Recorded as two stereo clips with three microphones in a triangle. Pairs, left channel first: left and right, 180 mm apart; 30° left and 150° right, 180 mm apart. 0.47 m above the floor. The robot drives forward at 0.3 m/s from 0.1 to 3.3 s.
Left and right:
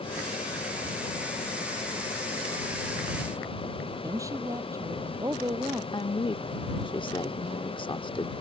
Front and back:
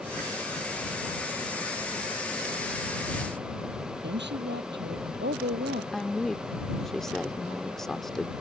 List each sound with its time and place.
4.0 s a woman speaking: 165° right
5.9 s a woman speaking: 115° left